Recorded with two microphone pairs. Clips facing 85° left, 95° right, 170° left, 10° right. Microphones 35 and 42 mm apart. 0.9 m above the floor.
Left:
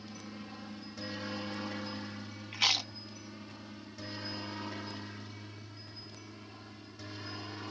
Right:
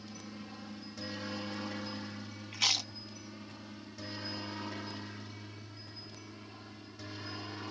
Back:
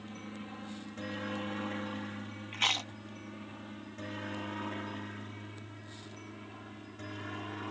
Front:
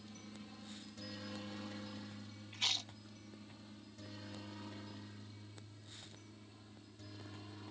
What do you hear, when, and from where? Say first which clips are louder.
0.0 s a helicopter: left 1 dB, back 9 dB; 165° left; by 7.7 s straight behind
2.5 s chewing: left 2 dB, back 8 dB; 155° left